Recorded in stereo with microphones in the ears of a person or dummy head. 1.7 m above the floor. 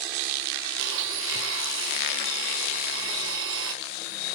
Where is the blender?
80° right, 0.9 m.